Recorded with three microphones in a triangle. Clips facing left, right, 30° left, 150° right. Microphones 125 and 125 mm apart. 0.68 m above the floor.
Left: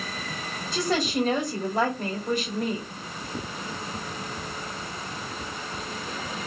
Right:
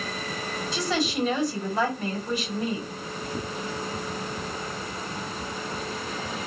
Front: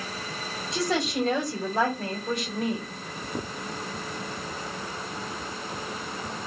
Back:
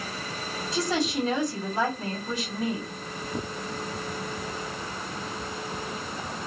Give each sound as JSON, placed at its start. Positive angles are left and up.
{"t": 0.7, "sound": "a woman speaking", "azimuth_deg": 55, "distance_m": 2.0}